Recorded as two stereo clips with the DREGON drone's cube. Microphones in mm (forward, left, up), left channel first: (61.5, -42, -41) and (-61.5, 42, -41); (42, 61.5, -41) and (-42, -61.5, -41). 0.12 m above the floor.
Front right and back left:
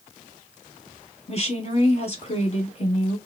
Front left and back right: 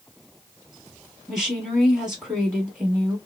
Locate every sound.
1.3 s a woman speaking: 40° right, 1.6 m